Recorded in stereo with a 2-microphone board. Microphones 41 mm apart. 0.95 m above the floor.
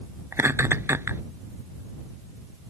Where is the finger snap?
I don't hear a finger snap.